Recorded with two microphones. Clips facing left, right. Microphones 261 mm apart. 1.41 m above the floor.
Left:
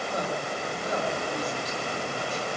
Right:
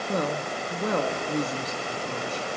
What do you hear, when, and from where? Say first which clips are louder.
0.1 s a woman speaking: right 6 dB; 65° right (ahead or behind), 1.9 m